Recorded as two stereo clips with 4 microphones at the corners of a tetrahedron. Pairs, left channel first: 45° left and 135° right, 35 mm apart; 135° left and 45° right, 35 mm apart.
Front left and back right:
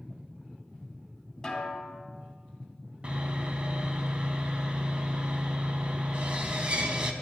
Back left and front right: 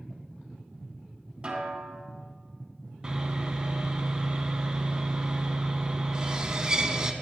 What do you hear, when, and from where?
1.4 s a snare drum: 15° right, 1.5 m
3.0 s sawing: 95° right, 0.6 m